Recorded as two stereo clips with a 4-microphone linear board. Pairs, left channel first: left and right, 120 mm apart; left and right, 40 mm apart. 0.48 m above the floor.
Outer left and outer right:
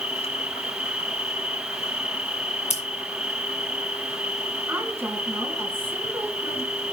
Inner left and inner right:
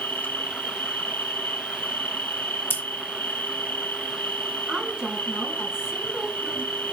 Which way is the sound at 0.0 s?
65° left (ahead or behind).